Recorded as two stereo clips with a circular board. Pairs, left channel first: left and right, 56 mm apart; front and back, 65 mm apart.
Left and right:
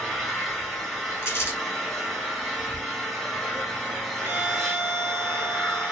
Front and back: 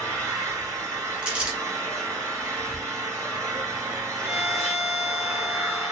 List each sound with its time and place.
0.0 s an engine running: straight behind, 2.5 m
1.2 s crumpling: 110° left, 1.5 m
4.2 s a violin: 110° right, 1.5 m